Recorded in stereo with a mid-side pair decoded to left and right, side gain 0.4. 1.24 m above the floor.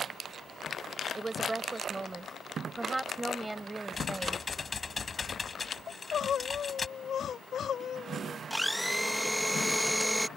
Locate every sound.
1.1 s a woman speaking: 25° right; by 4.5 s 15° right
3.9 s typing on a keyboard: 35° left
5.9 s crying: 60° left
8.5 s a blender: 5° right